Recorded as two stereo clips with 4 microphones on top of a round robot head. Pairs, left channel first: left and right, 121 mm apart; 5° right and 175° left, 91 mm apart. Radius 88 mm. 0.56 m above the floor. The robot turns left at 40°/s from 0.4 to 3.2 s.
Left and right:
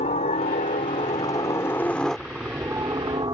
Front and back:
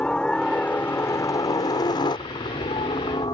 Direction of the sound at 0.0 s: 75° left.